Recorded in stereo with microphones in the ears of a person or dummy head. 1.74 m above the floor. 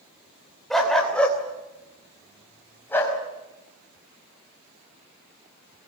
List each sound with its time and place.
0.7 s a dog barking: 5° left (ahead or behind), 2.5 m; by 3.2 s 10° left (ahead or behind), 5 m